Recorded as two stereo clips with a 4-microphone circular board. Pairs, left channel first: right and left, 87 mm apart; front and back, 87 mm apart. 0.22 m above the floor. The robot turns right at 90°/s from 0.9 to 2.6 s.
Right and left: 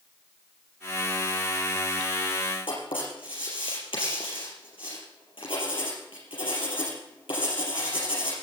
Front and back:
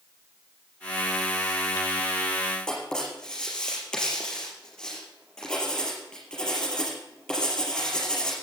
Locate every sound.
2.7 s writing: 85° right, 5.5 m